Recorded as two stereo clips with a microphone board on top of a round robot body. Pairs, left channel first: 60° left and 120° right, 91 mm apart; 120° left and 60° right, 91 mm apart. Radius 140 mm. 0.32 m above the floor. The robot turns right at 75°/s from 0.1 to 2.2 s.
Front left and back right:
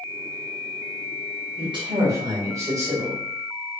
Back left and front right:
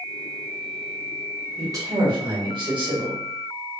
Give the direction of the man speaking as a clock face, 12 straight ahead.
4 o'clock.